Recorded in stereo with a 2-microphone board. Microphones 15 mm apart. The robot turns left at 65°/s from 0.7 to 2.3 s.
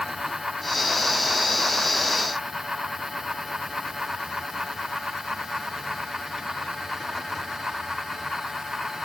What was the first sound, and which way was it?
Only background noise.